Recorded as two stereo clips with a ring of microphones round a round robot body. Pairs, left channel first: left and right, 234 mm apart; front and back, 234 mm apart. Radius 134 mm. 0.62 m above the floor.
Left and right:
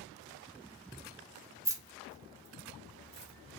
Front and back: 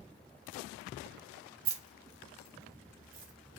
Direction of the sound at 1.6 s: 170° right.